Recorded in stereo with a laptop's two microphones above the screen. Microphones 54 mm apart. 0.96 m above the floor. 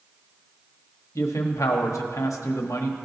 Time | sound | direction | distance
1.1 | a man speaking | 70° left (ahead or behind) | 1.2 m